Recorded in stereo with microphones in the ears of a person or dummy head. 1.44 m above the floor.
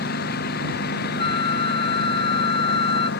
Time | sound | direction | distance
0.0 | a lawn mower | 55° left (ahead or behind) | ?
1.2 | a flute | 35° left (ahead or behind) | ?